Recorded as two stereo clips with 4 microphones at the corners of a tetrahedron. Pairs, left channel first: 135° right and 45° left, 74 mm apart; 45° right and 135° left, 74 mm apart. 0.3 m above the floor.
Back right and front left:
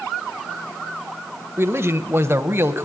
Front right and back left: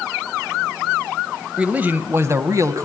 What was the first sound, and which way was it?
A man speaking, 70° left.